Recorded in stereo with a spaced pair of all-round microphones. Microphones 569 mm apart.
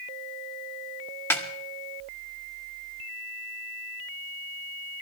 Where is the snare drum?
5° left (ahead or behind), 1.7 m.